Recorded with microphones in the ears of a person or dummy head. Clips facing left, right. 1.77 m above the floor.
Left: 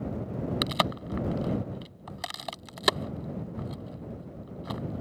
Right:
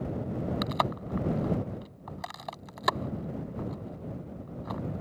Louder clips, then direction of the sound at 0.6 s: Left 1 dB; 35° left (ahead or behind).